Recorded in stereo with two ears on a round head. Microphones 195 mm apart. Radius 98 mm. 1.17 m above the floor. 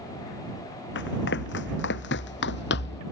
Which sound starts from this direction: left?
Running footsteps, at 0.9 s.